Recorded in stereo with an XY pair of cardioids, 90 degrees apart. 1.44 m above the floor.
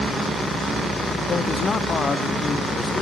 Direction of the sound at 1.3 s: 55° left.